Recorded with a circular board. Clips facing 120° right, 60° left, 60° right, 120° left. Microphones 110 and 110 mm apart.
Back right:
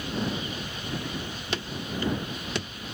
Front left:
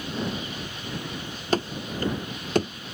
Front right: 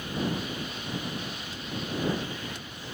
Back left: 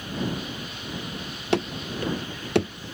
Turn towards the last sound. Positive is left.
turn(degrees=105)